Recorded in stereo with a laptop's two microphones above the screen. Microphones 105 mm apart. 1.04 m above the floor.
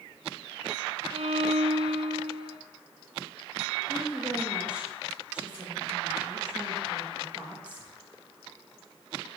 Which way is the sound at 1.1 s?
75° right (ahead or behind).